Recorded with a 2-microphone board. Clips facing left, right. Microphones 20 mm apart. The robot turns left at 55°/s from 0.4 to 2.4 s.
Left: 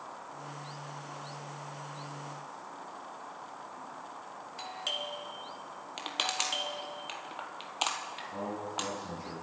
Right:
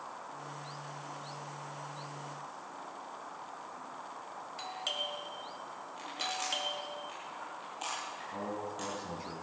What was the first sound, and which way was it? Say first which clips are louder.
A doorbell: left 1 dB; centre (ahead or behind).